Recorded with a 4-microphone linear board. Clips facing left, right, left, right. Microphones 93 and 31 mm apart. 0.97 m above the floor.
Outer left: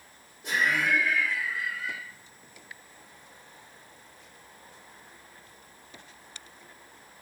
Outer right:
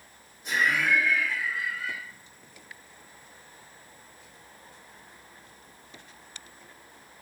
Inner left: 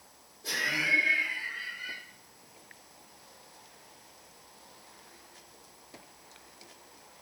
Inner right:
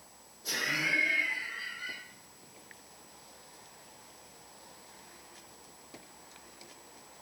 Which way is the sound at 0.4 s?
60° left (ahead or behind).